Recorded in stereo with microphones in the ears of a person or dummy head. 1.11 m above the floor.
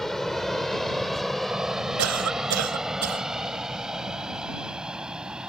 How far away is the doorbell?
No doorbell in this recording.